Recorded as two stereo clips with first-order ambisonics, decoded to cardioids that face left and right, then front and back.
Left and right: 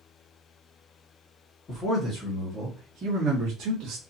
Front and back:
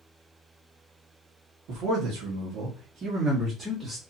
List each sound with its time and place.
1.7 s a man speaking: 155° left, 1.3 m; by 4.0 s 90° right, 1.2 m